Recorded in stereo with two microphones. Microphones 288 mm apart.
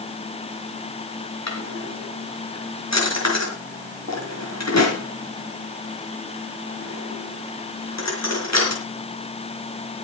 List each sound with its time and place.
1.5 s a drawer: 75° left (ahead or behind), 4.5 m